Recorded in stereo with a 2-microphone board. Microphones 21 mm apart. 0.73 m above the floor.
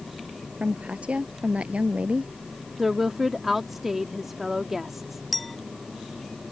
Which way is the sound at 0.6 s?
75° right (ahead or behind).